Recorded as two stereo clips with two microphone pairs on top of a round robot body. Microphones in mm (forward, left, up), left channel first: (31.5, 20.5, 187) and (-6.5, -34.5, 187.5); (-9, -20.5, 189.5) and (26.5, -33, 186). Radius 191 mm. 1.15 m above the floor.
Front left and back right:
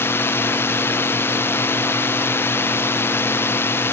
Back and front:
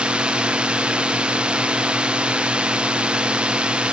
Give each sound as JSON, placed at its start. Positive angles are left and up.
{"t": 0.0, "sound": "a drone", "azimuth_deg": 20}